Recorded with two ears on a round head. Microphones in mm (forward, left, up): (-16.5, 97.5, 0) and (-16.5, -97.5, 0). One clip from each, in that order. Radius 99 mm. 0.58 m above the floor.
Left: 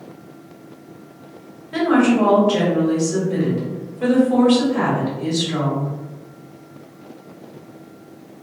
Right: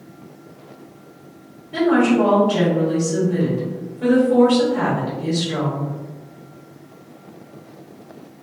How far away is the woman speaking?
About 1.4 m.